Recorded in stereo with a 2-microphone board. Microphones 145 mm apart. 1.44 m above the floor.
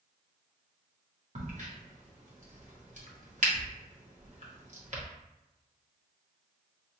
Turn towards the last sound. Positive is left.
turn(degrees=-55)  # may be behind; listen again after turning